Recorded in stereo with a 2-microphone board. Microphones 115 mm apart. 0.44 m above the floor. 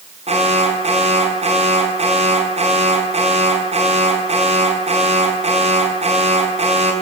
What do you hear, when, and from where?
0.3 s an alarm: 65° right (ahead or behind), 5.5 m